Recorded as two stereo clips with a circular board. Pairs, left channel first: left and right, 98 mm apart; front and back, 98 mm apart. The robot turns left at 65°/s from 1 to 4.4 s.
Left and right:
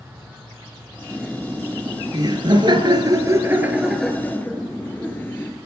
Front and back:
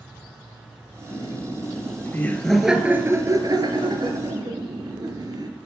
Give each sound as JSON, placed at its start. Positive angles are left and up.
{"t": 1.1, "sound": "laughter", "azimuth_deg": 5, "distance_m": 2.0}